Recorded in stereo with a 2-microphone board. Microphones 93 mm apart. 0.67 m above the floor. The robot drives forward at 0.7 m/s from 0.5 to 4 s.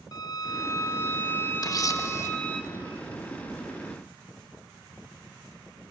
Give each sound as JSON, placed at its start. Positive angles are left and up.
{"t": 0.1, "sound": "a violin", "side_deg": 40, "distance_m": 0.8}
{"t": 1.6, "sound": "a camera shutter", "side_deg": 45, "distance_m": 1.0}